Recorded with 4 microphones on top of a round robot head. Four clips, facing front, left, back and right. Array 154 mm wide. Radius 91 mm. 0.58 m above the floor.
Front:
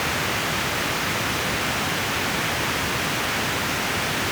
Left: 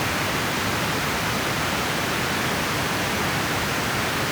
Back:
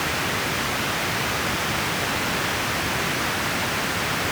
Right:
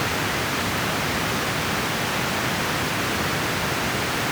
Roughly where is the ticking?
I don't hear ticking.